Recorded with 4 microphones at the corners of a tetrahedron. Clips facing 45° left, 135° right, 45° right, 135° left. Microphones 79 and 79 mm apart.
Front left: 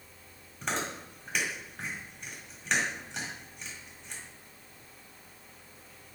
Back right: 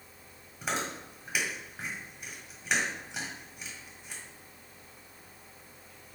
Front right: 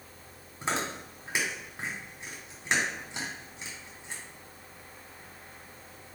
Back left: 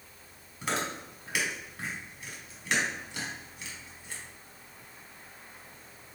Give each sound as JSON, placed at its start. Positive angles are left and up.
{"t": 0.6, "sound": "chewing", "azimuth_deg": -60, "distance_m": 1.2}